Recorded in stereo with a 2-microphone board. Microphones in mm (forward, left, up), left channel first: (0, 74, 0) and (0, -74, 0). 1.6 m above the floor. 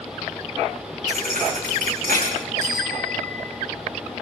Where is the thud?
70° right (ahead or behind), 8.5 m.